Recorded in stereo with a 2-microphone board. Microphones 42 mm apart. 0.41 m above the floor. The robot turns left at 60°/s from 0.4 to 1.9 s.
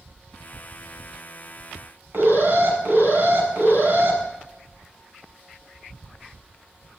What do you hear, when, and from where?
2.1 s an alarm: 60° right (ahead or behind), 6 m